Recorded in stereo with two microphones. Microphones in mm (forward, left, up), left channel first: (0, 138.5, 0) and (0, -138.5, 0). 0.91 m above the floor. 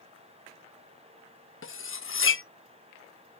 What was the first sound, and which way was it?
Cutlery clinking, 50° left (ahead or behind).